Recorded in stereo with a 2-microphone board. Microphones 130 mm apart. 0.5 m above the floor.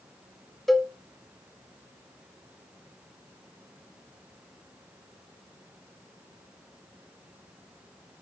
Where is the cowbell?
Centre (ahead or behind), 0.8 m.